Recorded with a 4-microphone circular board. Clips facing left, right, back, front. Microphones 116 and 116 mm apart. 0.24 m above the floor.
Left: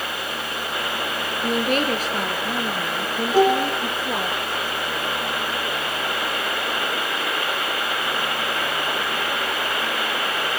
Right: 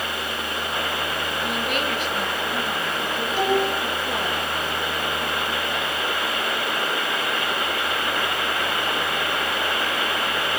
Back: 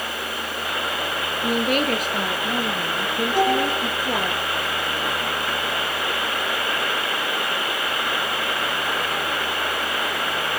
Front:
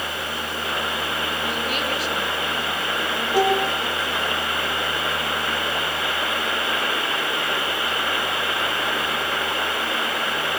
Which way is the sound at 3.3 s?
75° left.